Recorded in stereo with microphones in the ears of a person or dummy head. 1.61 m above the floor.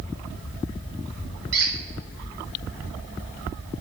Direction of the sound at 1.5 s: 50° right (ahead or behind).